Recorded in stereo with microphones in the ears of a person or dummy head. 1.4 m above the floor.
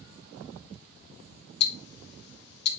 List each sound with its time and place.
1.6 s ticking: 65° left (ahead or behind), 1.5 m